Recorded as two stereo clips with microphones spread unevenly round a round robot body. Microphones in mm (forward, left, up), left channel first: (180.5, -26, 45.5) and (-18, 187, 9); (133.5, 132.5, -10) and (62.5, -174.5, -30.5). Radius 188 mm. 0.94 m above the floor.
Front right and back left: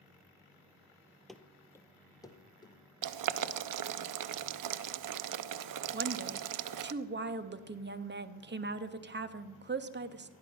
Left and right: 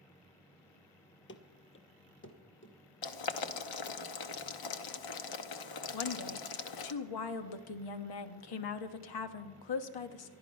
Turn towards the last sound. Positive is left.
turn(degrees=80)